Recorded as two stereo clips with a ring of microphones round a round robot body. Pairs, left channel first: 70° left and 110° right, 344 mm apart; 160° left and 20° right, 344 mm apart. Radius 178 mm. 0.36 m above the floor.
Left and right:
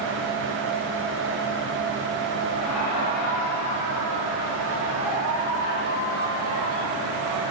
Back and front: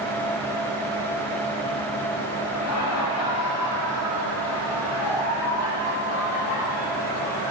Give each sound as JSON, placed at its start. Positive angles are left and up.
{"t": 2.5, "sound": "laughter", "azimuth_deg": 110, "distance_m": 6.0}